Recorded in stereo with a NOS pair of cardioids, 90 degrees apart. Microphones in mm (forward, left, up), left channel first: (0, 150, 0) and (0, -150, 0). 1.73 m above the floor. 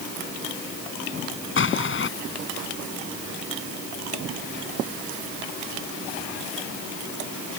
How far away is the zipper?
I don't hear a zipper.